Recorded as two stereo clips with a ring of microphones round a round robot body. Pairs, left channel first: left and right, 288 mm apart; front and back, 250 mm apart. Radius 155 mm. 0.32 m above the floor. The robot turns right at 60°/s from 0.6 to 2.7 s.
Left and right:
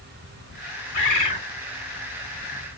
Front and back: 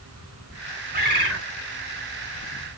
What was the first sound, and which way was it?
A bird, 130° left.